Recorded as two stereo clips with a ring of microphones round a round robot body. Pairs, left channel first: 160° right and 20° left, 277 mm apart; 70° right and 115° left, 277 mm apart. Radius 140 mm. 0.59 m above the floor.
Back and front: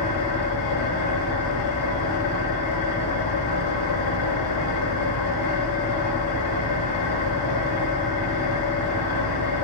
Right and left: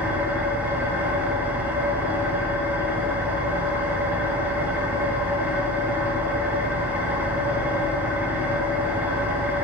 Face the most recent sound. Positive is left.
turn(degrees=-165)